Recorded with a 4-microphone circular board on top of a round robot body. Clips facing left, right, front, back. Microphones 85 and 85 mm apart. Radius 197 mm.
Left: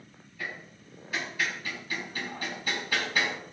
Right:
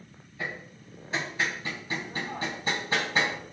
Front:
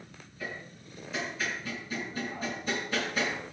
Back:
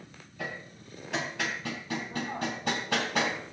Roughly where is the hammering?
Behind right.